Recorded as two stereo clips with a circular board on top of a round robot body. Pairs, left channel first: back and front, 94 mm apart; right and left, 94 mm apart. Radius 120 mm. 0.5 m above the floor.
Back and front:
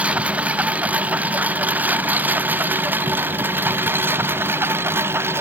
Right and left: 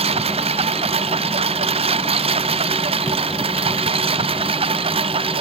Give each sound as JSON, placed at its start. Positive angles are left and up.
{"t": 0.0, "sound": "a lawn mower", "azimuth_deg": 75}